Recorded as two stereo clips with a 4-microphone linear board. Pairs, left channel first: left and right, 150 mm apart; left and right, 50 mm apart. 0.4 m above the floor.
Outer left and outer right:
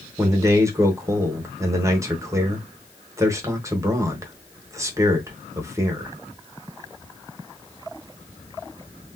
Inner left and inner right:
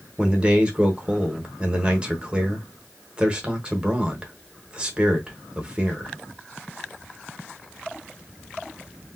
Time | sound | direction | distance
0.2 | a man speaking | 20° right (ahead or behind) | 0.8 m